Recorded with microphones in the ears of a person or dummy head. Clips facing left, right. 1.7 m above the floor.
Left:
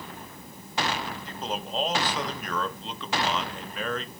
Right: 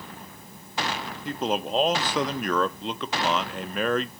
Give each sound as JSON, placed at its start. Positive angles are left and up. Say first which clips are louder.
{"t": 1.2, "sound": "a man speaking", "louder": "right 12 dB", "side_deg": -45, "distance_m": 0.6}